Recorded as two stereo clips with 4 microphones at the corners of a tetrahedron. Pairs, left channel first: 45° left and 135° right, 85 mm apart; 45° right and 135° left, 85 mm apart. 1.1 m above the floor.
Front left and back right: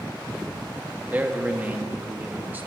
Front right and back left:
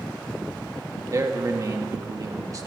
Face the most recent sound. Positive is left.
turn(degrees=160)